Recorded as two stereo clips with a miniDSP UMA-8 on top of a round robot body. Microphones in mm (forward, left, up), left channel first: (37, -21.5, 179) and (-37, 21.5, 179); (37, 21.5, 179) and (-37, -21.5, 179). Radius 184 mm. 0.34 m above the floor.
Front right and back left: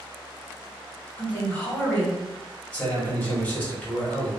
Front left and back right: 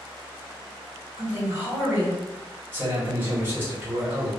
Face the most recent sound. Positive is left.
turn(degrees=-95)